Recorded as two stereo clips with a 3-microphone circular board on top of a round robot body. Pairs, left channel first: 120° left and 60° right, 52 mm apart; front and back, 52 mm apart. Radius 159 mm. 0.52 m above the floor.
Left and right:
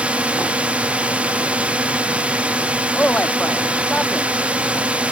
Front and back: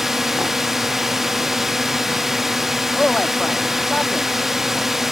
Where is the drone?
100° right.